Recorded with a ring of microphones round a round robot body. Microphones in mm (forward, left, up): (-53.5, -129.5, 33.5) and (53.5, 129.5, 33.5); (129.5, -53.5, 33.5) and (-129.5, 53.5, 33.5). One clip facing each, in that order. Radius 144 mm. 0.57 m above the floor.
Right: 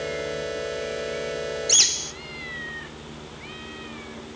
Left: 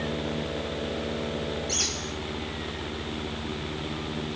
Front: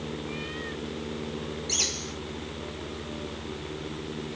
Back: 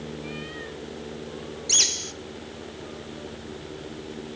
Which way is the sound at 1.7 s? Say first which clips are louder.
Left 2 dB, front 1 dB; 145° right.